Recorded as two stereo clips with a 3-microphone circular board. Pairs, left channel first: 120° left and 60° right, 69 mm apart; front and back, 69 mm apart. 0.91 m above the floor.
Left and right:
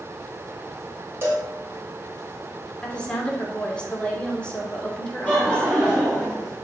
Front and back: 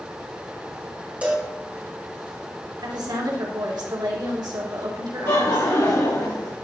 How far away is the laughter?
About 1.9 m.